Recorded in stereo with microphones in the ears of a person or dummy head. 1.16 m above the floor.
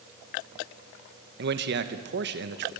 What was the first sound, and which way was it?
A man speaking, 55° right (ahead or behind).